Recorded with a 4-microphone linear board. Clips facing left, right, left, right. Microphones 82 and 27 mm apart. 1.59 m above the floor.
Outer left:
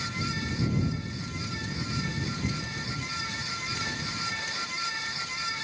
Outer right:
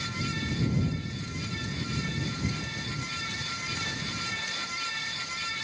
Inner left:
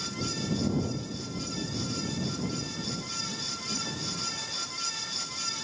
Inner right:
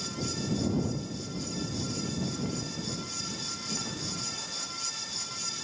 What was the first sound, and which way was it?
Only background noise.